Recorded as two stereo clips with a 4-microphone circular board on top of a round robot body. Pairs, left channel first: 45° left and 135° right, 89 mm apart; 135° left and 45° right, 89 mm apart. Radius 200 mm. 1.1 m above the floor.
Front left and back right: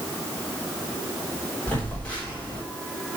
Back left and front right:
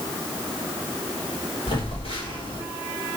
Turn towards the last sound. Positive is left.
turn(degrees=120)